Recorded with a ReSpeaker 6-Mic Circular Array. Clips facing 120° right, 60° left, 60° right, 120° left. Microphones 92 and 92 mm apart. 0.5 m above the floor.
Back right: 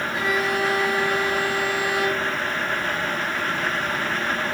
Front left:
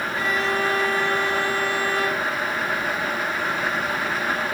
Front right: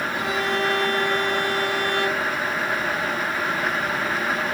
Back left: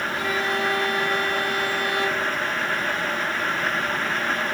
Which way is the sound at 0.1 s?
45° right.